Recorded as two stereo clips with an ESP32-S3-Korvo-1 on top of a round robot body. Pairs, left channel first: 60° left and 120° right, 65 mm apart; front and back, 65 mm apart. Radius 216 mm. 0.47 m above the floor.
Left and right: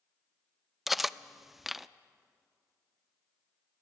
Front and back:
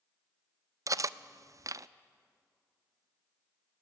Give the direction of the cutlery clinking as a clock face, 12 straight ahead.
7 o'clock.